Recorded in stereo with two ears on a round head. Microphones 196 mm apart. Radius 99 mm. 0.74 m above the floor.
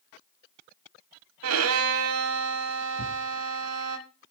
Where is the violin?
70° right (ahead or behind), 1.2 m.